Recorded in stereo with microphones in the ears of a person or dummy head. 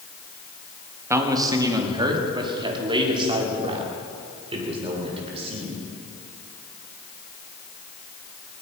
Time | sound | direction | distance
1.1 | a man speaking | 20° right (ahead or behind) | 1.7 m